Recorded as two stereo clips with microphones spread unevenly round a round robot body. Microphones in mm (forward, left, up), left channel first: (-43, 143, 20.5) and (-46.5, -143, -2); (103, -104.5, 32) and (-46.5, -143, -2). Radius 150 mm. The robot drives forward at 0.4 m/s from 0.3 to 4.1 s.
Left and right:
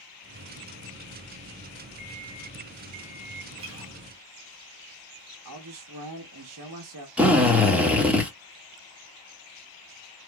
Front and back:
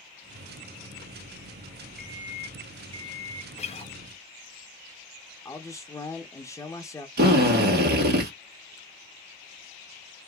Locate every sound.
2.0 s an alarm clock: 75° right, 0.8 m; by 3.5 s 120° right, 0.9 m
3.6 s a guitar: 35° right, 0.6 m; by 3.9 s 45° right, 0.5 m
5.5 s a man speaking: 65° right, 0.8 m
7.2 s a drill: 175° right, 1.6 m